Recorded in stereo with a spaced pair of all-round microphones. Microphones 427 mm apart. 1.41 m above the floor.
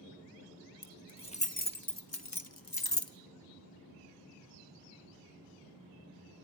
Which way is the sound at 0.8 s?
5° left (ahead or behind).